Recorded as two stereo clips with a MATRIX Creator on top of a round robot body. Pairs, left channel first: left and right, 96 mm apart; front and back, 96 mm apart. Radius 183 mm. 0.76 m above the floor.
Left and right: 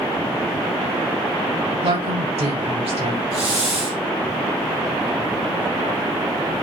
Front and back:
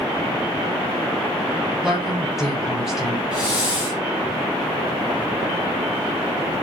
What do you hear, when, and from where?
1.8 s a woman speaking: 95° right, 6.5 m
3.3 s a hiss: 100° right, 4.5 m